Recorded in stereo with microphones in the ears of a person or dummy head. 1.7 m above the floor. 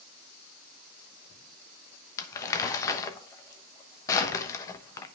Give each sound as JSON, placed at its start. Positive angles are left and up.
{"t": 2.2, "sound": "crumpling", "side_deg": 15, "distance_m": 1.0}